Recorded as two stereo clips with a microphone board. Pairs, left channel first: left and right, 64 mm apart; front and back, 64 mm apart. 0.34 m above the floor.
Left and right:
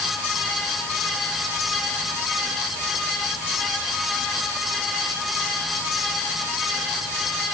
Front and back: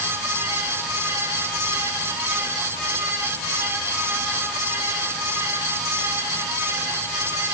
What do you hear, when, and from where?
Only background noise.